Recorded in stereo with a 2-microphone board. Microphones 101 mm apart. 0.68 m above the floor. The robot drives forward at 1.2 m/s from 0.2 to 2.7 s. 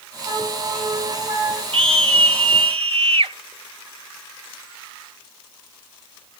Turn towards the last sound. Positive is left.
turn(degrees=-70)  # may be behind; listen again after turning